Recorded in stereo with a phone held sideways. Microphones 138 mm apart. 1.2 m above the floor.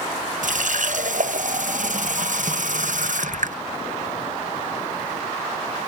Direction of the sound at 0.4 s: 65° right (ahead or behind).